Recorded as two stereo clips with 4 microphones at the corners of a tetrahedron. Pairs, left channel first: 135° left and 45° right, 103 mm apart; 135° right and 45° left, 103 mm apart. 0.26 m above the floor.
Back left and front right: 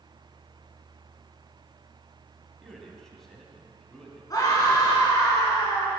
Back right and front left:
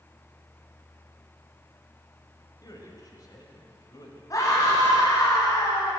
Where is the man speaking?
140° right, 1.7 m.